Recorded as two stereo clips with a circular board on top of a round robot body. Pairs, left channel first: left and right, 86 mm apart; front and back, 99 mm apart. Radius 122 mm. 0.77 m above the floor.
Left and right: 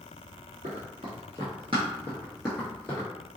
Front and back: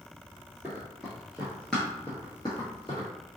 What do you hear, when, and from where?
0.6 s running footsteps: 100° right, 1.2 m; by 3.1 s 45° left, 0.8 m